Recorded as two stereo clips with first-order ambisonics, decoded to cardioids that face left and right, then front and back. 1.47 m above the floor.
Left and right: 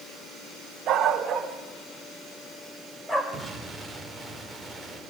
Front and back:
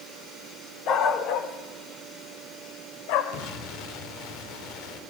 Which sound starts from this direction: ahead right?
A dog barking, at 0.9 s.